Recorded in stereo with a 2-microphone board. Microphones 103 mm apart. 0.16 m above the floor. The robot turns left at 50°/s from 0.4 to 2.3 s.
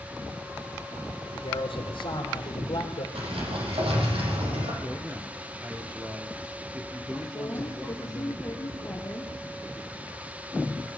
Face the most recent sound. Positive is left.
turn(degrees=25)  # may be behind; listen again after turning